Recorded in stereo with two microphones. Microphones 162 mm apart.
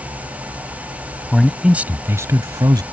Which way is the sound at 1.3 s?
Centre (ahead or behind).